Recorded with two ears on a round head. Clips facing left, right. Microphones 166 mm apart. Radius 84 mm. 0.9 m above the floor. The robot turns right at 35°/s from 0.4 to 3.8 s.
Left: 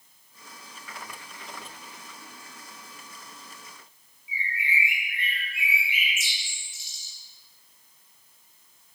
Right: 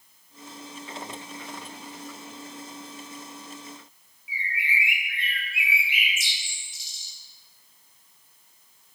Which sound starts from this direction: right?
A bird, at 4.3 s.